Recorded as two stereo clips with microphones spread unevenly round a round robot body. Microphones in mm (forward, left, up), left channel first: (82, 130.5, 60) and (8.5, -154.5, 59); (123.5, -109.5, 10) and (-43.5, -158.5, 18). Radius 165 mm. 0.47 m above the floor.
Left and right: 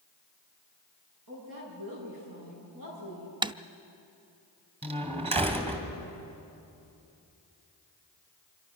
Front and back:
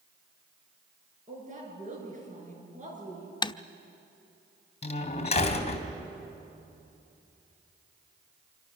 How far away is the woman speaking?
About 8.5 m.